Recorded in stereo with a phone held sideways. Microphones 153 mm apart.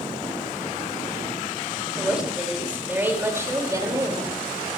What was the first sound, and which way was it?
A woman speaking, 5° right (ahead or behind).